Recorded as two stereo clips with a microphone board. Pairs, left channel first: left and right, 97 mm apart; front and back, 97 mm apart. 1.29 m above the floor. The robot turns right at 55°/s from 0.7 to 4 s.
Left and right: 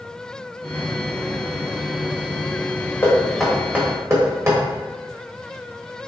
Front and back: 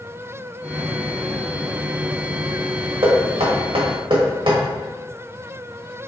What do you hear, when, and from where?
3.0 s knocking: 155° left, 1.3 m; by 4.6 s 150° right, 1.3 m